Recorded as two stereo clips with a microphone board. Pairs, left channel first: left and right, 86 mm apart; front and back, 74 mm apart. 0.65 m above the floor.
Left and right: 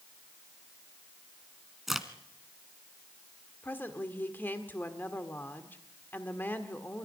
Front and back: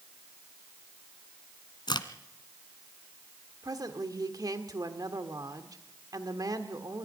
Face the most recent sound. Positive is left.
turn(degrees=155)